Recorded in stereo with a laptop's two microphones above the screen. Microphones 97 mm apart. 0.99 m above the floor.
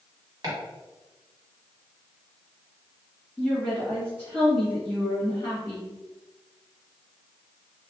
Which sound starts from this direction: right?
Chopping, at 0.4 s.